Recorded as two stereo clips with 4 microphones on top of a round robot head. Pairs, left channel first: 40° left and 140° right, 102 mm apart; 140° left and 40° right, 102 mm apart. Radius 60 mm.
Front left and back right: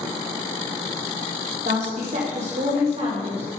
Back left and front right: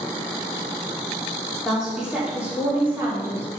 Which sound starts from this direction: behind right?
A woman speaking, at 1.6 s.